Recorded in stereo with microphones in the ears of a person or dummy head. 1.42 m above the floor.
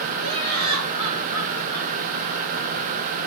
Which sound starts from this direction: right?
Laughter, at 0.2 s.